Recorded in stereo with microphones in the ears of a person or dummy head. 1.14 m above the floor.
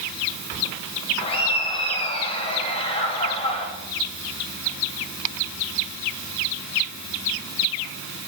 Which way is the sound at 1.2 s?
30° left (ahead or behind).